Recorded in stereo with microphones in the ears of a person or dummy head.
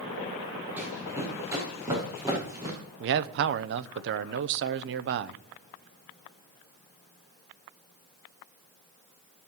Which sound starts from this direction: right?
A man speaking, at 3.0 s.